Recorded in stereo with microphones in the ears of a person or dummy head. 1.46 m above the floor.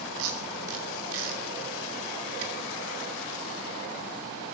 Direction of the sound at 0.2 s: 75° right (ahead or behind).